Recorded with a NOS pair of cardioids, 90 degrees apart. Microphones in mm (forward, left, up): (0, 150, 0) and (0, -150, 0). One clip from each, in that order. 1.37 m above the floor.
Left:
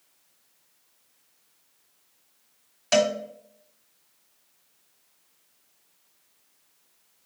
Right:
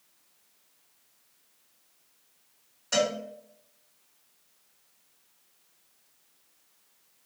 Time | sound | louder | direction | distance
2.9 | a cowbell | left 5 dB | 70° left | 1.6 m